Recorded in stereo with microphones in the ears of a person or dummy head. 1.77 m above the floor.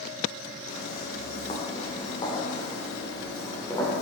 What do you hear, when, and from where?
0.7 s footsteps: 45° left (ahead or behind), 4 m; by 4.0 s 15° left (ahead or behind), 6 m